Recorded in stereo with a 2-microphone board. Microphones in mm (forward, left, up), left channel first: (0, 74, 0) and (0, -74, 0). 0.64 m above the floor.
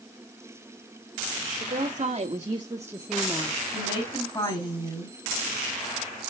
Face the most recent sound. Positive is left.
turn(degrees=25)  # may be behind; listen again after turning